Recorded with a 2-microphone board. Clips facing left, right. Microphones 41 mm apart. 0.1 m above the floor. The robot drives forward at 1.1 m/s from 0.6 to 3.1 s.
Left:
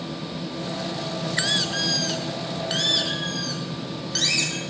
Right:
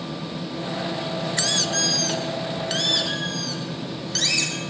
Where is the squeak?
20° left (ahead or behind), 0.7 m; by 4.6 s 5° left (ahead or behind), 2 m.